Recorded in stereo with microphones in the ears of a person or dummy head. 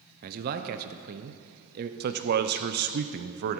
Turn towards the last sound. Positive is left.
turn(degrees=-55)  # may be behind; listen again after turning